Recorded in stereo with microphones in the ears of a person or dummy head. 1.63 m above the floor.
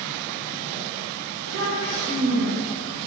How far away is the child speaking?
About 1.1 m.